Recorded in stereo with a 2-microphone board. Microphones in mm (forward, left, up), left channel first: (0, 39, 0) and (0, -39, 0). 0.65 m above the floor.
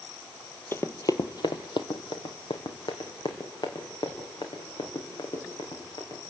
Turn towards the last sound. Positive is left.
turn(degrees=60)  # may be behind; listen again after turning